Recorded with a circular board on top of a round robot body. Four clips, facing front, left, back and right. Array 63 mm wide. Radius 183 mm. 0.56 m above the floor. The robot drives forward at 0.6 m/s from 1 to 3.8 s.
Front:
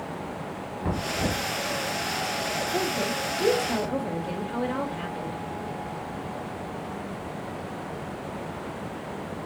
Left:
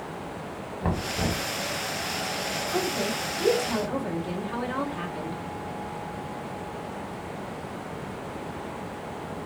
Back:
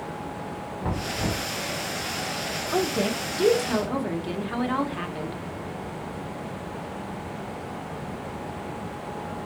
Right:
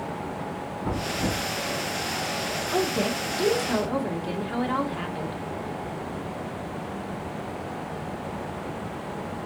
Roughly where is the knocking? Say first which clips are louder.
Even, front 1 dB; left.